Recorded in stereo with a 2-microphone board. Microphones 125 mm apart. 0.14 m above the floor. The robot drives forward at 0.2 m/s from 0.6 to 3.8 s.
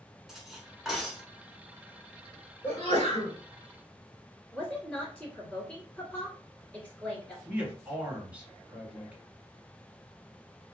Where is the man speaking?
10° right (ahead or behind), 1.6 m.